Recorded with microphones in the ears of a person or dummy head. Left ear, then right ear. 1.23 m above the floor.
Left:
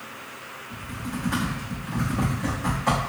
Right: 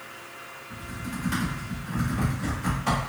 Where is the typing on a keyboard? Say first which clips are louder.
Left 2 dB; 10° right (ahead or behind), 1.8 m.